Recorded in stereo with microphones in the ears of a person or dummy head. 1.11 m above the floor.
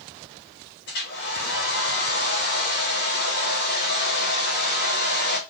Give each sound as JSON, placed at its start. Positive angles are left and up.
{"t": 0.9, "sound": "a hair dryer", "side_deg": 55, "distance_m": 2.5}